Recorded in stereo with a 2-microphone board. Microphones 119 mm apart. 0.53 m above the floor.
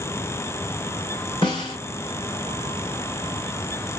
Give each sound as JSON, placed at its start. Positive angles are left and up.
{"t": 1.4, "sound": "a snare drum", "side_deg": 40, "distance_m": 2.0}